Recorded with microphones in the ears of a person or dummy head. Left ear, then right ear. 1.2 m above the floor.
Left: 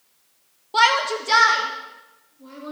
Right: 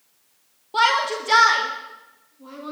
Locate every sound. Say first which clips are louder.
0.7 s a shout: left 1 dB; 15° left (ahead or behind), 1.2 m; by 2.7 s 20° right (ahead or behind), 2.5 m